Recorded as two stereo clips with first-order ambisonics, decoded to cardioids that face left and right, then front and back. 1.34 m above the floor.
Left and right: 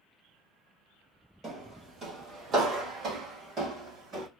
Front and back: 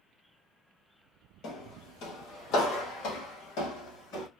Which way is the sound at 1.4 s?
30° right.